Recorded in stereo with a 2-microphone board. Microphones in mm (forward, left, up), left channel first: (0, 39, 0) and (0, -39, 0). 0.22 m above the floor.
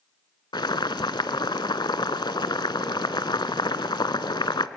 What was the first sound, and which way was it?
Boiling, 75° left (ahead or behind).